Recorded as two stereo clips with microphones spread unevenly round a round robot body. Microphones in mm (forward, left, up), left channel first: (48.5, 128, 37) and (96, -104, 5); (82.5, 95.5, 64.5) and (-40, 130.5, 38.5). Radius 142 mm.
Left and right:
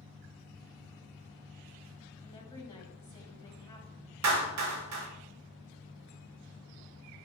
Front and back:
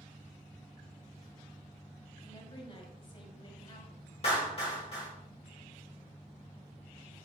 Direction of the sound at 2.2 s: 30° left.